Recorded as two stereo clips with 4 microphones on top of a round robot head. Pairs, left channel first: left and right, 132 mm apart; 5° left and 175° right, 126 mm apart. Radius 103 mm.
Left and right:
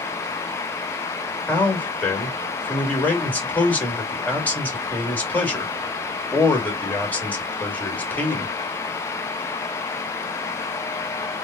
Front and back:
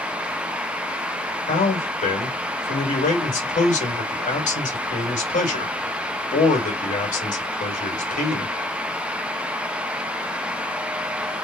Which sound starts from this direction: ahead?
A man speaking, at 1.5 s.